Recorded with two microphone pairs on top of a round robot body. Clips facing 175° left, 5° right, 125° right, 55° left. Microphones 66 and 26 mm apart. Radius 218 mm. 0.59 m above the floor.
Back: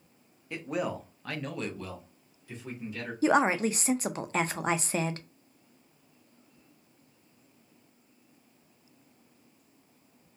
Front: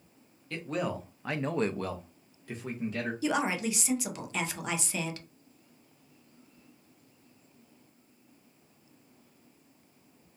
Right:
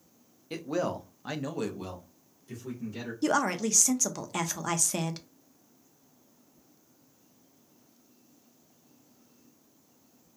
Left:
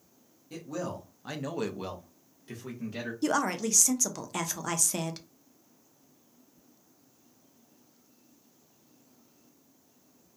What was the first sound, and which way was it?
A man speaking, 115° right.